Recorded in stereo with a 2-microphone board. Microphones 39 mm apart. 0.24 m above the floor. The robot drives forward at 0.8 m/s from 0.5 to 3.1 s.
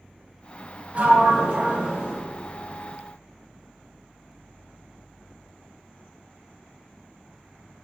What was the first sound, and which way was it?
A sliding door, 30° right (ahead or behind).